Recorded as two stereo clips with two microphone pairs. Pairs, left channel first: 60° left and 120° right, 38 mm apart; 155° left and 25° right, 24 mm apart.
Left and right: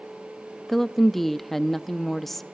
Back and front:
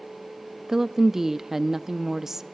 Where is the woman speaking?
5° right, 0.6 m.